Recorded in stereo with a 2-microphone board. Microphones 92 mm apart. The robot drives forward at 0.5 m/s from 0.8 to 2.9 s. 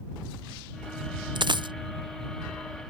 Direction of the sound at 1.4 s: 55° right (ahead or behind).